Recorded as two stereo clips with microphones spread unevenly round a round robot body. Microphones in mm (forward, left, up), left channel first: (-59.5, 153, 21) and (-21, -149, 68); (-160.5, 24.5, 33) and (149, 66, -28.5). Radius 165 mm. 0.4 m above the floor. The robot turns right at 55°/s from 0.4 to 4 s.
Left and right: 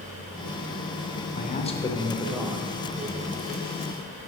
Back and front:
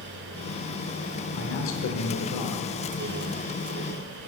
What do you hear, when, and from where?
1.4 s a man speaking: 130° left, 1.0 m; by 2.7 s 155° right, 1.0 m